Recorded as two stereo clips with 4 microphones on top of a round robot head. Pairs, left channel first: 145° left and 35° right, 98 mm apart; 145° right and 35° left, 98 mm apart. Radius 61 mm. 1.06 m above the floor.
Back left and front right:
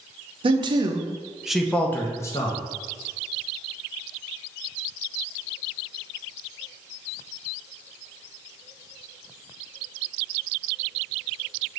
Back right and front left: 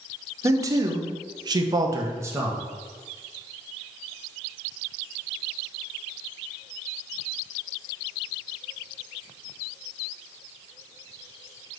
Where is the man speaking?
20° right, 0.7 m; by 2.6 s 100° left, 0.9 m.